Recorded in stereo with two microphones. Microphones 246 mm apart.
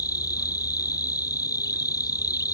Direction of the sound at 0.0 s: 15° left (ahead or behind).